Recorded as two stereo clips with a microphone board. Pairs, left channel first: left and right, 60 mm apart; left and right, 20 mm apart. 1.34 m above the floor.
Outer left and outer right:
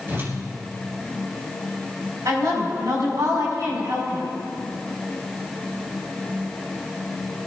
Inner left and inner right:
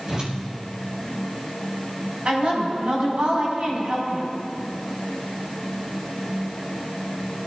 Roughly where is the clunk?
I don't hear a clunk.